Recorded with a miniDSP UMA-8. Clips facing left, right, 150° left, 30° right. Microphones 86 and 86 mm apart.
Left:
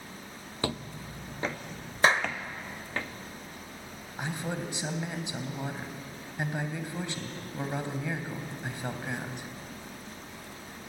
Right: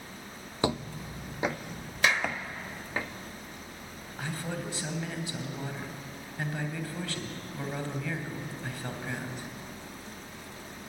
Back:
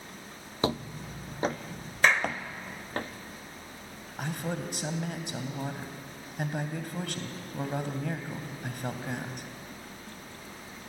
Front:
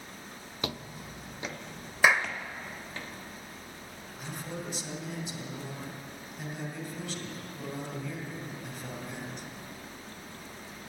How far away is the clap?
About 1.4 m.